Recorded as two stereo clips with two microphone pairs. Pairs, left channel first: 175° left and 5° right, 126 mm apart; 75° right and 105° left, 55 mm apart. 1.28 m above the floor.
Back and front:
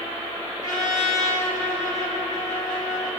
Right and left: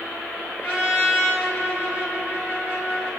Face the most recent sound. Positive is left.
turn(degrees=50)